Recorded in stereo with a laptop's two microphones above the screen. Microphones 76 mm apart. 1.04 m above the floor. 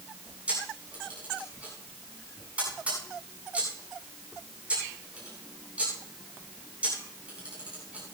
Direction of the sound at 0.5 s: 15° right (ahead or behind).